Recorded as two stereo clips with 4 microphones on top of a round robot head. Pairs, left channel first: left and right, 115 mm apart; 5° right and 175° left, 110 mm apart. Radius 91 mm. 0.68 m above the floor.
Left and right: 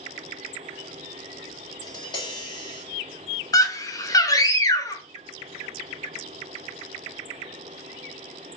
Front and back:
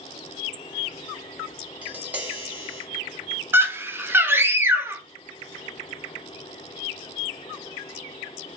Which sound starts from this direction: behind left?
A scream, at 3.5 s.